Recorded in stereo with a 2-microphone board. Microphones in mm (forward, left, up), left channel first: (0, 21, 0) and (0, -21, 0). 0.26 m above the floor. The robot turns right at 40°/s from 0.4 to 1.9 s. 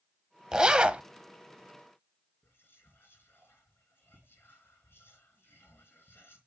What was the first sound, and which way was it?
A zipper, 15° right (ahead or behind).